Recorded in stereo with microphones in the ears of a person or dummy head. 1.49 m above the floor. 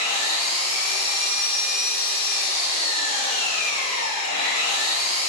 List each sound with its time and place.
0.0 s an engine running: 40° left (ahead or behind), 0.7 m